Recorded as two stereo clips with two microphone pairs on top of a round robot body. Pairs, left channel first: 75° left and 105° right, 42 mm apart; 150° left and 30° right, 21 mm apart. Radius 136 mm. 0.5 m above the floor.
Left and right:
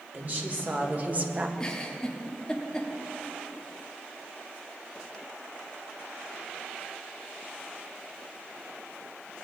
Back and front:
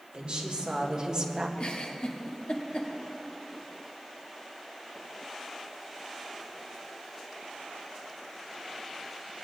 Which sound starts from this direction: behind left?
A giggle, at 1.6 s.